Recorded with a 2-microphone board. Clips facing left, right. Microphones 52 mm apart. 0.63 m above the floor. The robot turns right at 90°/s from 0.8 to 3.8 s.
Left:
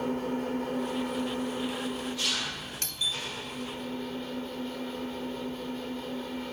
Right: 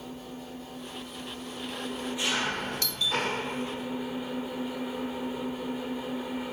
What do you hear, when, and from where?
0.0 s an engine running: 75° left, 2 m; by 6.5 s 15° right, 2 m
2.8 s a doorbell: 45° left (ahead or behind), 7.5 m; by 3.2 s 15° left (ahead or behind), 7.5 m